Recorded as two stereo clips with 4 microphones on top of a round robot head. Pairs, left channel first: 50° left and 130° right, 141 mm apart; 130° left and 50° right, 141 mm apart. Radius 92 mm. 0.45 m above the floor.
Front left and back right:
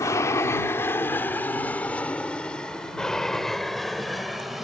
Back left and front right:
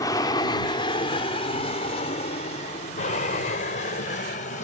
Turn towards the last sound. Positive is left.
turn(degrees=140)